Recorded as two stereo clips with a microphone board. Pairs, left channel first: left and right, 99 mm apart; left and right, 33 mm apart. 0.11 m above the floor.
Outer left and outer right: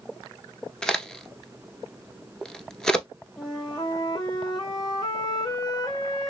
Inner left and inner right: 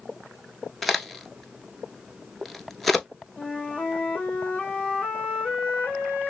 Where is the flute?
45° left (ahead or behind), 0.9 m.